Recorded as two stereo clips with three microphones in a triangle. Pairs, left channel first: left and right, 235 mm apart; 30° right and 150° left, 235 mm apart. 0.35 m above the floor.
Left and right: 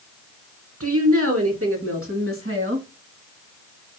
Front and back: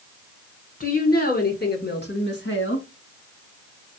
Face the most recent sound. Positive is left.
turn(degrees=-65)